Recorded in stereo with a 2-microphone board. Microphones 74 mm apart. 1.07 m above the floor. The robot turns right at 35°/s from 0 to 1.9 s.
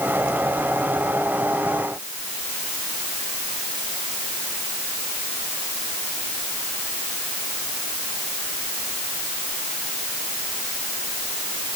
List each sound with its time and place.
Only background noise.